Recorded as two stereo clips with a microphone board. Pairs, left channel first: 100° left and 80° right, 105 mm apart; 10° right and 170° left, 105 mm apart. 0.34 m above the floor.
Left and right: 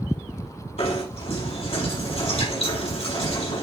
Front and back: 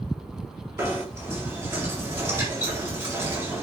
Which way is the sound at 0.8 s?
100° left.